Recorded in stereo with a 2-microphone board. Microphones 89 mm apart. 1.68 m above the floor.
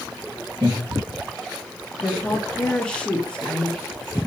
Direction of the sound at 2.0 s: 10° left (ahead or behind).